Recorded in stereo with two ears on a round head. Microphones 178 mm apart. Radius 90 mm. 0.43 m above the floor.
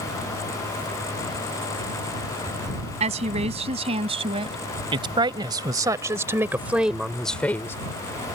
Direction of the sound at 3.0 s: 30° right (ahead or behind).